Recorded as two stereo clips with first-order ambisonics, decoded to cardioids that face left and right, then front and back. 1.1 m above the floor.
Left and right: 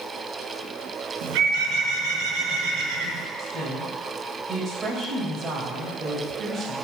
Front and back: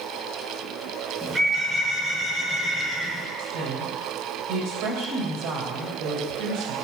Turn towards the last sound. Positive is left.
turn(degrees=-165)